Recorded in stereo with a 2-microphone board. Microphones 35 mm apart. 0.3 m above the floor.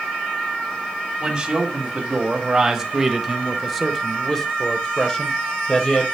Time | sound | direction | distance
1.2 | a man speaking | 20° right (ahead or behind) | 2.0 m